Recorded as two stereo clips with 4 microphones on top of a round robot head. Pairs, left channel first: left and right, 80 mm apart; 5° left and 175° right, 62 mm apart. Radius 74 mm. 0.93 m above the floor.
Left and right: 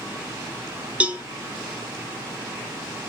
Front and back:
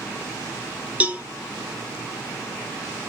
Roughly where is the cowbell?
Behind right.